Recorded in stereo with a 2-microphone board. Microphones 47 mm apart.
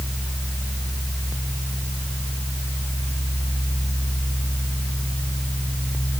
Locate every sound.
Only background noise.